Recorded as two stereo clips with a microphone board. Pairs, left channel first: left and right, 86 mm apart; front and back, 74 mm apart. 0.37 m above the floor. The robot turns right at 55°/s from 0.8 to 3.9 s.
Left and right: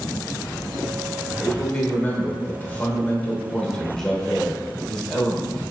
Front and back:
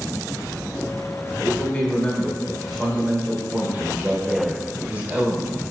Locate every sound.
1.4 s a man speaking: 25° left, 0.8 m; by 5.6 s 160° left, 0.8 m